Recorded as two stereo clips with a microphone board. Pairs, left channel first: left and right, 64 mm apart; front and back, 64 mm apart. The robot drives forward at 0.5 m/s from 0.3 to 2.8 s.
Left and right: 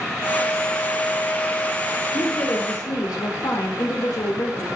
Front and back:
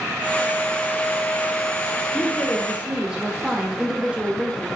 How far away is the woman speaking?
About 1.5 m.